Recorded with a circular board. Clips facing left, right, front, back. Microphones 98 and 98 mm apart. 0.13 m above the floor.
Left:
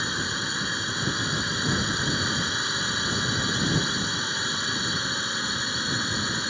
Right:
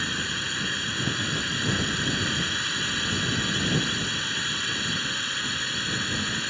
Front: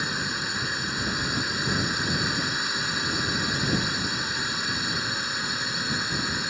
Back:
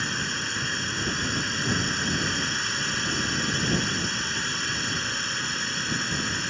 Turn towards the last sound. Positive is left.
turn(degrees=65)